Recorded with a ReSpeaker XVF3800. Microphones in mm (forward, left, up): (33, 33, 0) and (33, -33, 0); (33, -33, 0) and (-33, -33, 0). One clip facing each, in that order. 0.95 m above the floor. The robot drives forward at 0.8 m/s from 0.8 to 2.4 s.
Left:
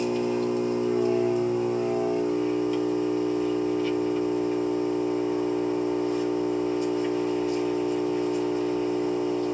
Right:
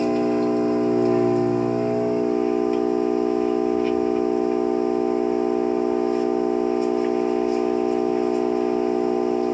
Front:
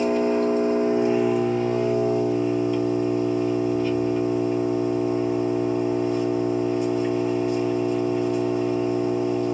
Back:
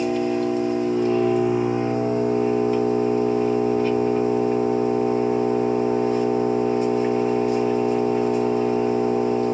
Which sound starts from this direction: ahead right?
An engine running, at 0.0 s.